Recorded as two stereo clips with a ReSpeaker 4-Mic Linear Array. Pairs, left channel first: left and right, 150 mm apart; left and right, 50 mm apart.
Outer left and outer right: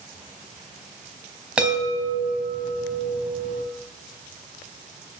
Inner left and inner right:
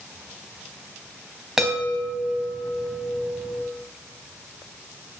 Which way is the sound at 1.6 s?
5° right (ahead or behind).